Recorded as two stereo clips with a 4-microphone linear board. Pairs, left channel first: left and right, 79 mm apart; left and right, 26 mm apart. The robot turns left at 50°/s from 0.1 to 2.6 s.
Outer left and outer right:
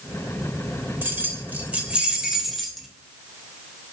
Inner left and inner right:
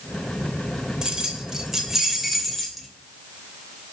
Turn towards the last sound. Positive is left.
turn(degrees=0)  # may be behind; listen again after turning